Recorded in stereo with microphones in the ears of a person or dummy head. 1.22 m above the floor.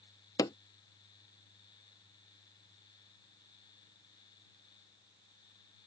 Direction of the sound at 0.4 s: 15° left (ahead or behind).